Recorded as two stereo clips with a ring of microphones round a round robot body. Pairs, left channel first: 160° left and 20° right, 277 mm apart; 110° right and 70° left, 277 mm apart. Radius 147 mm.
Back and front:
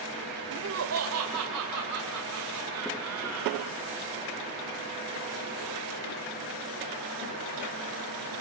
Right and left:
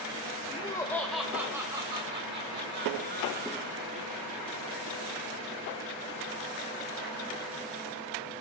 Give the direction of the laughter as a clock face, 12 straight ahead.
2 o'clock.